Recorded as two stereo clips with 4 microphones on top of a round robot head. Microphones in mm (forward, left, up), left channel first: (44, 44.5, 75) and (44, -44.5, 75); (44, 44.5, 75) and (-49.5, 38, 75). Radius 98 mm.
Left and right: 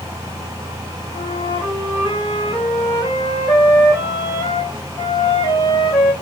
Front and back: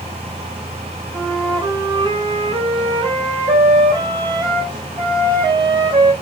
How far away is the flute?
About 2 m.